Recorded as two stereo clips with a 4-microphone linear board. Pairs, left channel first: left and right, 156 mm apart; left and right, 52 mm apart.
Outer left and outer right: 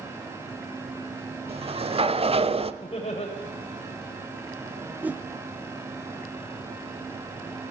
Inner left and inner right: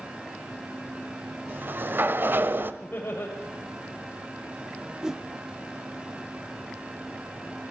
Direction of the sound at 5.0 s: 10° right (ahead or behind).